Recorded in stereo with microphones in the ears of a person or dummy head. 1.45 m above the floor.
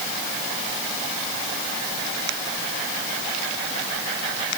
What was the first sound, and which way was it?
Only background noise.